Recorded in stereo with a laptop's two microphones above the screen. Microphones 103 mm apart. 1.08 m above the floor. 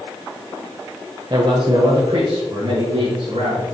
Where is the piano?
No piano in this recording.